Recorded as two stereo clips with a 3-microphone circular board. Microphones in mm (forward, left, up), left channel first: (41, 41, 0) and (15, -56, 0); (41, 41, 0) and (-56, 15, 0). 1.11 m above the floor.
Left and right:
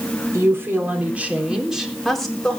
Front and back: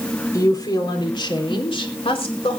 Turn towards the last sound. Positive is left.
turn(degrees=-5)